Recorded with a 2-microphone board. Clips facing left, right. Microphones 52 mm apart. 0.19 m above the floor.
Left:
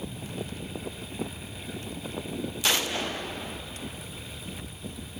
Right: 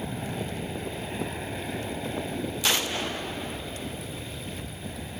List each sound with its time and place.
0.0 s an aircraft: 45° right (ahead or behind)